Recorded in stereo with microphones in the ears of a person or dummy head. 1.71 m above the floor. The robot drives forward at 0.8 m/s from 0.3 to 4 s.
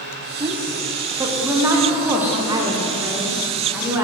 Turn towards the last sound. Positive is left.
turn(degrees=-10)  # may be behind; listen again after turning